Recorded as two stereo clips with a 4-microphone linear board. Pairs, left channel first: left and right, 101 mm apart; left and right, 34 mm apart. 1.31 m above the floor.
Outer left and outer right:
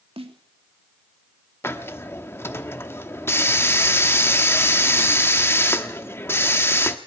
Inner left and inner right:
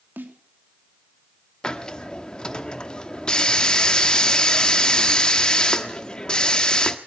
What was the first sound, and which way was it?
A snare drum, 80° right.